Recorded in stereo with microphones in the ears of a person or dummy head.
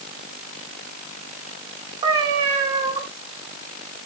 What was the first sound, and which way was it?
A cat meowing, 25° right (ahead or behind).